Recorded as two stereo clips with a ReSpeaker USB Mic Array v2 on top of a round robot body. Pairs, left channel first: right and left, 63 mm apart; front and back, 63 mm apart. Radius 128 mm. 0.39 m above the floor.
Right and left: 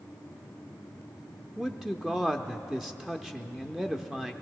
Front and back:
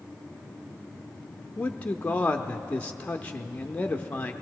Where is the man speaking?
20° left, 0.8 m.